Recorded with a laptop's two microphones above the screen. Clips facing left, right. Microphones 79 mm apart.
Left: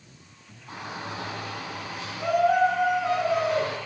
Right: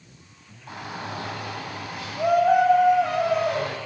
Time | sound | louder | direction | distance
0.7 | a shout | right 2 dB | 75° right (ahead or behind) | 10 m